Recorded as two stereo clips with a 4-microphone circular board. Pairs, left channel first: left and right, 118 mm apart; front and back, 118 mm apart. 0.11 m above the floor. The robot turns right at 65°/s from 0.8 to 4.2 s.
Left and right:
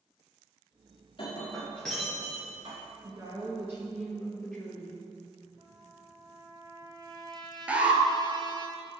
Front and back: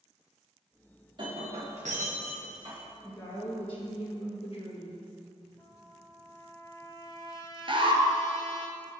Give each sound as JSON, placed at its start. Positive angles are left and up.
{"t": 1.2, "sound": "breaking glass", "azimuth_deg": 130, "distance_m": 3.5}
{"t": 3.0, "sound": "a woman speaking", "azimuth_deg": -70, "distance_m": 3.0}
{"t": 5.6, "sound": "a trumpet", "azimuth_deg": -50, "distance_m": 1.5}
{"t": 7.7, "sound": "an alarm", "azimuth_deg": -165, "distance_m": 1.1}